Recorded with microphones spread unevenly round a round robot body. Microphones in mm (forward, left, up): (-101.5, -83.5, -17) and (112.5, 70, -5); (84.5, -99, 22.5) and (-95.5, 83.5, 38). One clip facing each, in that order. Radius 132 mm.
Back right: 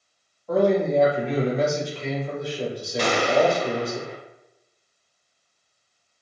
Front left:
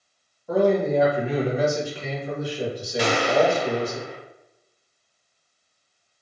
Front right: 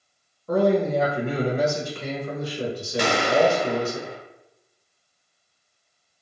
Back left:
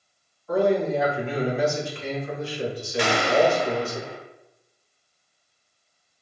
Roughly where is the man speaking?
Ahead right.